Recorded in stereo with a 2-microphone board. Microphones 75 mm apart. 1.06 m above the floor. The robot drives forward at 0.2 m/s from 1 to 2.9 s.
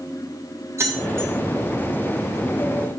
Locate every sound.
0.8 s keys jangling: 35° right (ahead or behind), 1.3 m